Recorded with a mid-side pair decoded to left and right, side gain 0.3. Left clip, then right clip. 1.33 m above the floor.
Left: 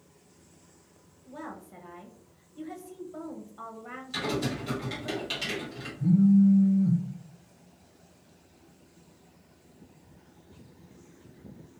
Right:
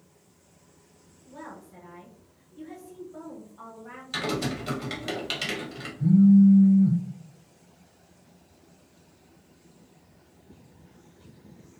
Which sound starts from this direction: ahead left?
A woman speaking, at 1.3 s.